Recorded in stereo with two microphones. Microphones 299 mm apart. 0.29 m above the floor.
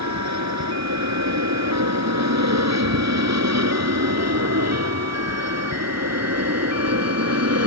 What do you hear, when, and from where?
0.0 s an aircraft: 65° right (ahead or behind); by 7.7 s 55° right (ahead or behind)